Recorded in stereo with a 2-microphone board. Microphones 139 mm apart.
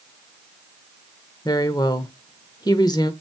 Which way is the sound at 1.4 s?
30° left (ahead or behind).